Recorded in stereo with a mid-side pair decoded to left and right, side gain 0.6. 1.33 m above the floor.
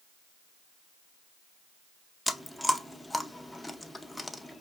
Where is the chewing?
10° left, 0.6 m.